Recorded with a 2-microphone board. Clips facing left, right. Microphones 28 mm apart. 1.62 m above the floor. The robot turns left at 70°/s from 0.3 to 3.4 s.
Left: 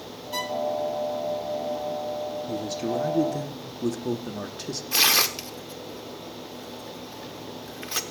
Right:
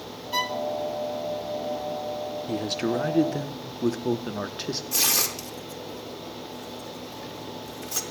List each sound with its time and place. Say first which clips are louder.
0.3 s a violin: right 2 dB; 20° right (ahead or behind), 0.6 m; by 0.6 s 40° right (ahead or behind), 0.6 m
2.5 s a man speaking: right 4 dB; 80° right, 1.0 m; by 4.8 s 145° right, 1.0 m
4.9 s tearing paper: left 6 dB; 40° left (ahead or behind), 1.0 m